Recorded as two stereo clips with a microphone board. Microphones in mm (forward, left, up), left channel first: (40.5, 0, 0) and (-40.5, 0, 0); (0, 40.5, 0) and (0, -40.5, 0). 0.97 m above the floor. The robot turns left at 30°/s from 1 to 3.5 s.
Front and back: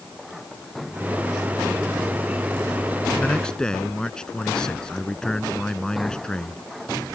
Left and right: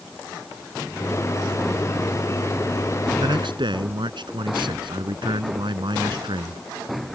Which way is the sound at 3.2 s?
70° right.